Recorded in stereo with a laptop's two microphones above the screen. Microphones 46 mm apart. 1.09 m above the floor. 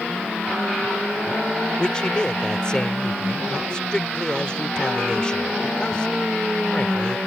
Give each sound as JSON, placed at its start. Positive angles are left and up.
{"t": 1.8, "sound": "a man speaking", "side_deg": 20}